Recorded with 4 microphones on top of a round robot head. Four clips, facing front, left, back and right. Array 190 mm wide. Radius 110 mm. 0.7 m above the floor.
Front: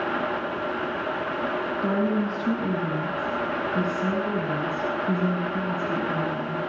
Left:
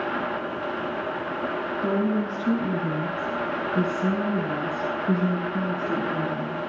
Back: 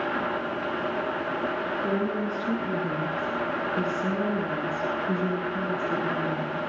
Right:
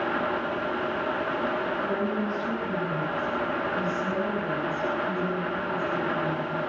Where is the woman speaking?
40° left, 8.5 m; by 6.6 s 60° left, 10 m.